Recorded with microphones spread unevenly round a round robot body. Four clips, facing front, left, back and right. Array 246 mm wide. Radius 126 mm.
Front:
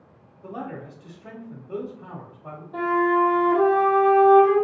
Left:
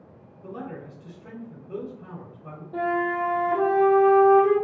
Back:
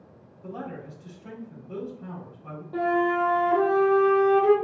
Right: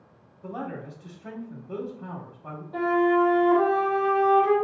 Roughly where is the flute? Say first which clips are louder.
Right 4 dB, front 3 dB; behind.